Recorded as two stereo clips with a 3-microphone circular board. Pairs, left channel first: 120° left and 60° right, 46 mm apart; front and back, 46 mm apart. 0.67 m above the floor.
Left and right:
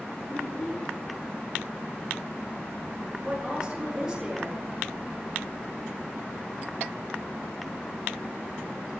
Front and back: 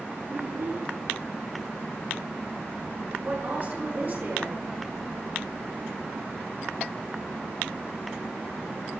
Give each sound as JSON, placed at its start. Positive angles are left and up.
{"t": 0.3, "sound": "a child speaking", "azimuth_deg": 180, "distance_m": 4.5}
{"t": 3.2, "sound": "a woman speaking", "azimuth_deg": -135, "distance_m": 10.0}